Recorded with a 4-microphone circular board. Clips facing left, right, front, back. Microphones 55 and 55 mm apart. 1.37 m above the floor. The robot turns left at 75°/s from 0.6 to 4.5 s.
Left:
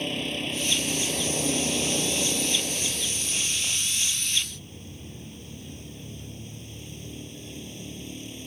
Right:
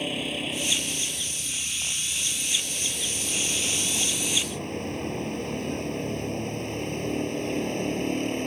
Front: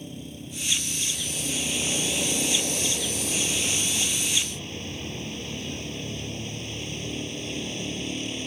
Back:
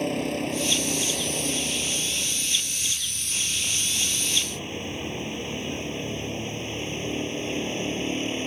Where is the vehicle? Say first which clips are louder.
Even, back 13 dB; 175° right; by 8.5 s 120° right.